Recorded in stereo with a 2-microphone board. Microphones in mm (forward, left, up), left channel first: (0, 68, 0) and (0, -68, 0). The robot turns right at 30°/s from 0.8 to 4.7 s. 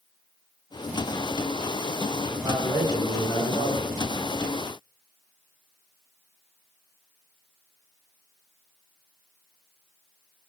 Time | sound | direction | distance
2.3 | a man speaking | 25° left | 1.5 m